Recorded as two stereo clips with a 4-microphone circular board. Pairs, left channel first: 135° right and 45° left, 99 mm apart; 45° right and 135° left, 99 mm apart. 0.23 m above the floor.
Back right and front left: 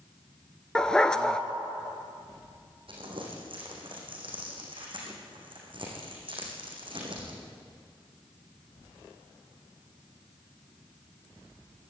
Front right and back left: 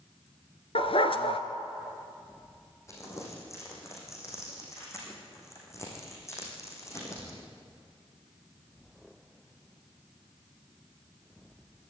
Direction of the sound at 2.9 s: 15° left.